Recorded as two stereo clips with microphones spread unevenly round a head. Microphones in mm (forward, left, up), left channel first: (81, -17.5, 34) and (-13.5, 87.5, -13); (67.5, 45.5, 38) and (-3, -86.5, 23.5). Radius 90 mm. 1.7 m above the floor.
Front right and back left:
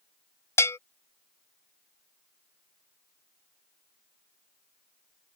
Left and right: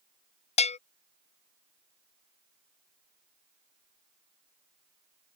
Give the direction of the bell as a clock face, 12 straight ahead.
11 o'clock.